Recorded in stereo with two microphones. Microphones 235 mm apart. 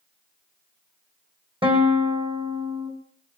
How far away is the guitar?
About 3.5 m.